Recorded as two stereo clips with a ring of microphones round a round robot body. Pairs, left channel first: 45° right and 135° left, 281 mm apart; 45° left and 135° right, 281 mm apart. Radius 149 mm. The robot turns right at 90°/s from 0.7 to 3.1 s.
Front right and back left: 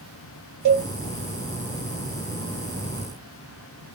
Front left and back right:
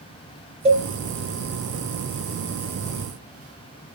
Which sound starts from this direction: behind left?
A cowbell, at 0.7 s.